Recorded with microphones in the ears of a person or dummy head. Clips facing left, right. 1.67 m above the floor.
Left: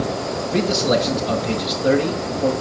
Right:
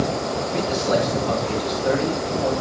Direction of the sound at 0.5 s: 55° left (ahead or behind).